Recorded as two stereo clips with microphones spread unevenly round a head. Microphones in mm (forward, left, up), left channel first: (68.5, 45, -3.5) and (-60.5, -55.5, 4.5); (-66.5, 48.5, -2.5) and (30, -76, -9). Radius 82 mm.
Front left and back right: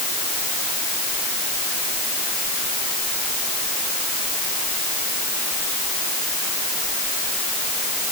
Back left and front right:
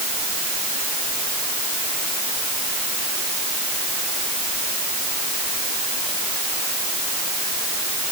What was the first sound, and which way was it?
Only background noise.